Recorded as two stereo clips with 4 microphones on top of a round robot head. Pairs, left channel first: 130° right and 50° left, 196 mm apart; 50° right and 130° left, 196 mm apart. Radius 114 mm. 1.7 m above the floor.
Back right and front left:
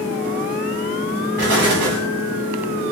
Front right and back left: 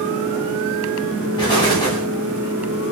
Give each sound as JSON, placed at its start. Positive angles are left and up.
{"t": 1.4, "sound": "an explosion", "azimuth_deg": 20, "distance_m": 2.0}